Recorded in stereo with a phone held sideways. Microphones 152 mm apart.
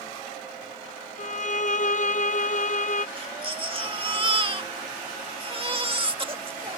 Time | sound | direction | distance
1.2 | a violin | 55° left (ahead or behind) | ?
3.2 | a baby crying | 35° right (ahead or behind) | ?